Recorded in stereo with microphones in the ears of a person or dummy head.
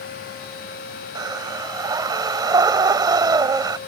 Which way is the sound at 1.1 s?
20° right (ahead or behind).